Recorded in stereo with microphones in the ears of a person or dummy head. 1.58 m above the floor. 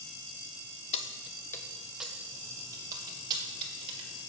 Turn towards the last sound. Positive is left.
turn(degrees=-30)  # may be behind; listen again after turning